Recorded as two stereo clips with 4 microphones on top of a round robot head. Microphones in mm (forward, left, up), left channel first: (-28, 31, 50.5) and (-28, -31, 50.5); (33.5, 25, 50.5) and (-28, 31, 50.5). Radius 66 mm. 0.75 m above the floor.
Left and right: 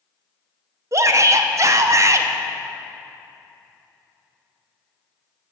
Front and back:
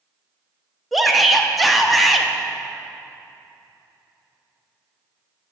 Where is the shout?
95° right, 0.7 m.